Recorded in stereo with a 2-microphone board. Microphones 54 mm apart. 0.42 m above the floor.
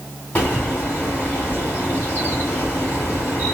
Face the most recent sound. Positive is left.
turn(degrees=25)  # may be behind; listen again after turning